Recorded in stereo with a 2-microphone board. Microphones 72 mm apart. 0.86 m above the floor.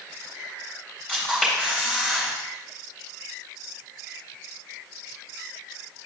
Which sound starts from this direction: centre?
A camera shutter, at 1.1 s.